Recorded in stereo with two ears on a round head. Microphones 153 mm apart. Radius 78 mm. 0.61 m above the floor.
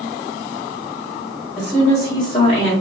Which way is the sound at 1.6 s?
5° left (ahead or behind).